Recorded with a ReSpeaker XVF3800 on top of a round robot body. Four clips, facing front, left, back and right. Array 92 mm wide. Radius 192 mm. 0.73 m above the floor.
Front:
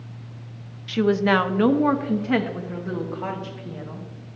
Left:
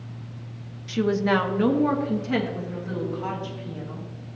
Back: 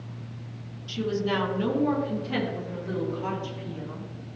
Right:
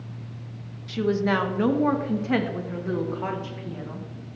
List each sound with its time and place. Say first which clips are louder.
0.9 s a woman speaking: left 1 dB, front 8 dB; 15° left, 1.0 m; by 4.1 s 50° right, 2.5 m